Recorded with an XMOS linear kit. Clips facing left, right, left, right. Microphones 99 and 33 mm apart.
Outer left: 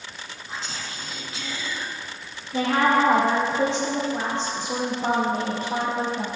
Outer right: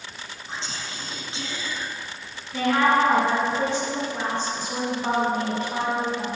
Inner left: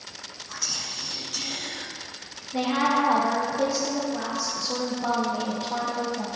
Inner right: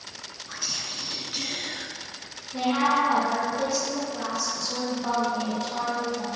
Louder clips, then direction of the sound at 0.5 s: Even, even; 30° right (ahead or behind).